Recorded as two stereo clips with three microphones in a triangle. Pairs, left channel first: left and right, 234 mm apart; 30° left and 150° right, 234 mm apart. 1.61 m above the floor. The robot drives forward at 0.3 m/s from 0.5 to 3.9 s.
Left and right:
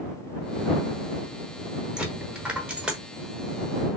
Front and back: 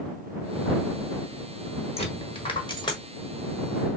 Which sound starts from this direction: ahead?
A dropped coin, at 2.0 s.